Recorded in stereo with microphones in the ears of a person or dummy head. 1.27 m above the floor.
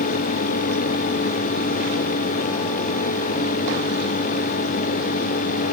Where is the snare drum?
No snare drum in this recording.